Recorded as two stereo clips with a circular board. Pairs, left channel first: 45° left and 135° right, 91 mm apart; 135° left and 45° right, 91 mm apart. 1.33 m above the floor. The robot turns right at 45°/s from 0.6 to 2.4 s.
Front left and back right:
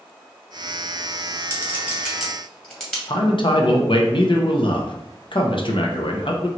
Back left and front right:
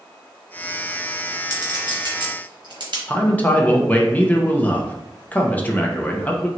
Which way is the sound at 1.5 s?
75° right.